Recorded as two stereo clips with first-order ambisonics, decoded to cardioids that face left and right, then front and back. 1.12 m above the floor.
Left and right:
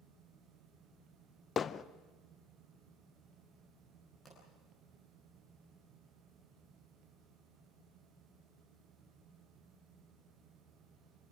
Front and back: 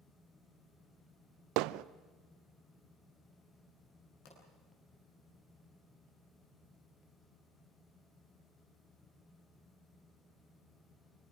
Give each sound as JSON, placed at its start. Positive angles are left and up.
{"t": 1.6, "sound": "hammering", "azimuth_deg": 155, "distance_m": 0.5}
{"t": 4.2, "sound": "a pop", "azimuth_deg": 15, "distance_m": 8.0}